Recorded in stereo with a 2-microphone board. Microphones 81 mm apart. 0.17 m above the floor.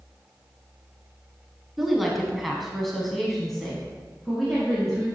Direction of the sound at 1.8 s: Centre (ahead or behind).